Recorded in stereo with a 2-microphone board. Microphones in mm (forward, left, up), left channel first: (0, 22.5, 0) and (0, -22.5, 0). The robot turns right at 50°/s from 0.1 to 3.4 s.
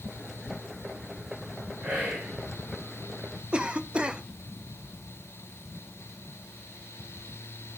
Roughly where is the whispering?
Centre.